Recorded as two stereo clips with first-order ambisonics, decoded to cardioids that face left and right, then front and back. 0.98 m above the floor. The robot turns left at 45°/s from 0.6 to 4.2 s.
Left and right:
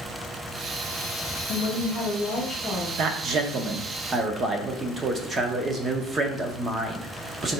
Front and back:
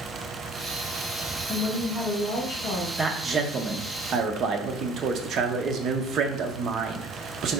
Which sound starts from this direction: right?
A man speaking, at 3.0 s.